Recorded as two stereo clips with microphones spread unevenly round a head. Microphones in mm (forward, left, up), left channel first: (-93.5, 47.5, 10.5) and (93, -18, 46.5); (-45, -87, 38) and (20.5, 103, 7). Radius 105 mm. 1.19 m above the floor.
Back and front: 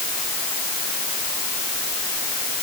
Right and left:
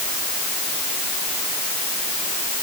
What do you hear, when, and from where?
Only background noise.